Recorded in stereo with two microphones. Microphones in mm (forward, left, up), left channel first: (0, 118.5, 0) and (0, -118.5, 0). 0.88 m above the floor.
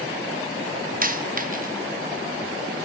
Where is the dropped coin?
35° right (ahead or behind), 0.6 m.